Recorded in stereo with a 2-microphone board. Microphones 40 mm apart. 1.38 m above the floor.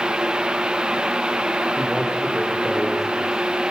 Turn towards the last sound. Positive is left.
turn(degrees=0)  # may be behind; listen again after turning